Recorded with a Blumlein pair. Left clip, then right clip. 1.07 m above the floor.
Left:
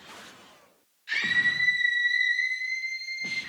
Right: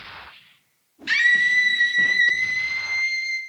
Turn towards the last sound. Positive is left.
turn(degrees=-35)